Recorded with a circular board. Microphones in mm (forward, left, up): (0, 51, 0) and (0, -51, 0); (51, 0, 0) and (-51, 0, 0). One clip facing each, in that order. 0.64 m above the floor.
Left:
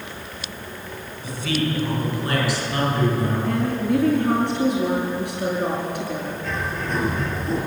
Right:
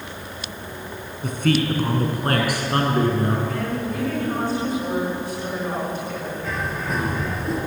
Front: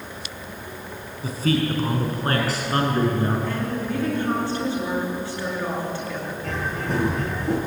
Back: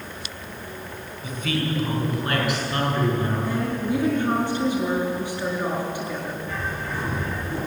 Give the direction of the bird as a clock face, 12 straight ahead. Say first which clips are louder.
Even, front 2 dB; 12 o'clock.